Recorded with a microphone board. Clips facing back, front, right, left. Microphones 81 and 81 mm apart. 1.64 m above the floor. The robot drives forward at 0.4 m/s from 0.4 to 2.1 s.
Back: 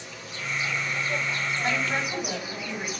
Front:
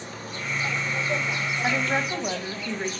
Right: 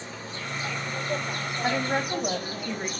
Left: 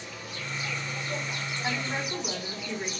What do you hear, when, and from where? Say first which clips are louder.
0.0 s an insect: front 3 dB, right 3 dB; 40° right, 0.9 m; by 3.0 s 105° right, 0.7 m
1.6 s a woman speaking: front 3 dB, right 6 dB; 55° right, 1.9 m; by 2.9 s 60° right, 1.8 m